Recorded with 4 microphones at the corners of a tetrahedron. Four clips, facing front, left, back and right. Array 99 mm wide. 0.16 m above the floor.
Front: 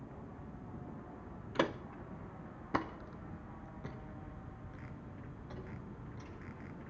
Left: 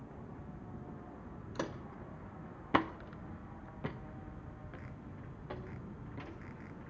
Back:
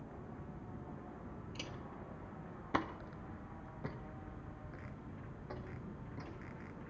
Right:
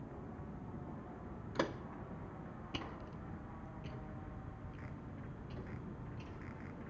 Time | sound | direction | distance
1.6 | footsteps | 10° right | 0.8 m